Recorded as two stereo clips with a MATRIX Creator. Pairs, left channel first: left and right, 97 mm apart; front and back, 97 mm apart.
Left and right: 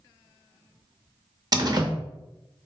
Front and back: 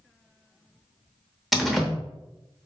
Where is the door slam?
90° right, 0.6 m.